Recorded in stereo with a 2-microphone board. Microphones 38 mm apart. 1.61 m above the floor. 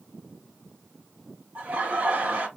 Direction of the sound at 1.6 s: 40° right (ahead or behind).